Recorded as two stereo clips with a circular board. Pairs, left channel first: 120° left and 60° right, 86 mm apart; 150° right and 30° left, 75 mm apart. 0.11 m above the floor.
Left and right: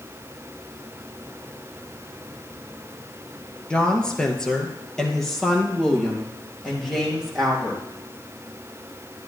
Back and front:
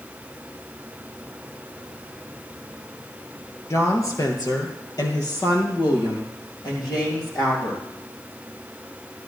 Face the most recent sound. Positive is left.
turn(degrees=-150)